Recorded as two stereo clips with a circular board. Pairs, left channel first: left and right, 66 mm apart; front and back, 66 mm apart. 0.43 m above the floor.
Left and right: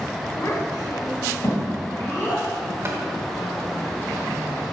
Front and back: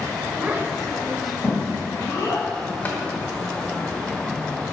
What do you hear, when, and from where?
0.4 s a child speaking: 125° left, 1.1 m; by 2.5 s 35° left, 2 m
2.9 s tapping: 55° right, 1.0 m